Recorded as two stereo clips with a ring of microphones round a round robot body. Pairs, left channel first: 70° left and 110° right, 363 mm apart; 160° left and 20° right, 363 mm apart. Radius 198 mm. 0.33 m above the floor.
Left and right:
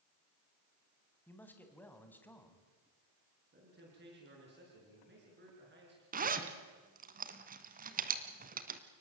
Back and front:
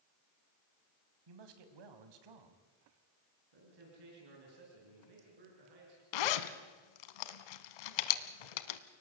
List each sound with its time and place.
1.3 s a man speaking: 20° right, 2.5 m
3.5 s a man speaking: 50° right, 6.5 m
6.1 s a zipper: 175° left, 1.1 m